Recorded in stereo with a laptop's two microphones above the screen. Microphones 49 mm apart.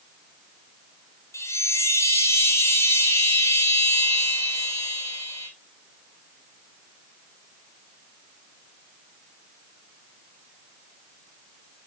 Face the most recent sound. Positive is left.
turn(degrees=75)  # may be behind; listen again after turning